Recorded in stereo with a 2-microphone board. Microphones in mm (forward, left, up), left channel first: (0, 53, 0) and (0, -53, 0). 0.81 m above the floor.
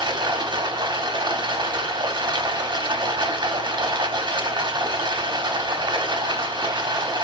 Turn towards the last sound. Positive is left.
turn(degrees=-45)  # may be behind; listen again after turning